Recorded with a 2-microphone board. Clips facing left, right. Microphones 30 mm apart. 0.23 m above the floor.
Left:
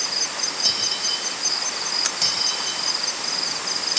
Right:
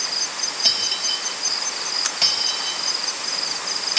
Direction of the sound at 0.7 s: 20° right (ahead or behind).